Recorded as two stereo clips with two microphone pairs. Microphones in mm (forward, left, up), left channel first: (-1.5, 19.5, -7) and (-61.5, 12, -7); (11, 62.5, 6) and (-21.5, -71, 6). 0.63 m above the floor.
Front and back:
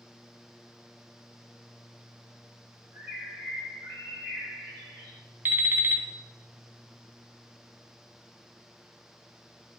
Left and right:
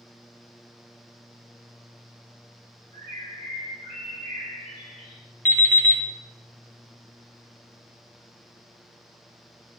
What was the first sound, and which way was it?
A bird, 140° right.